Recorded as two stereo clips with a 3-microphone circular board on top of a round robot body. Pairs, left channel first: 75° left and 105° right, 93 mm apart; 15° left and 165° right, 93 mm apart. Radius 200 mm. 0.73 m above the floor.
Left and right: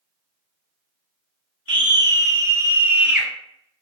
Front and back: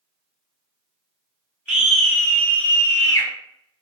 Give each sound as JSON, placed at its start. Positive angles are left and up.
{"t": 1.7, "sound": "a scream", "azimuth_deg": -85, "distance_m": 1.1}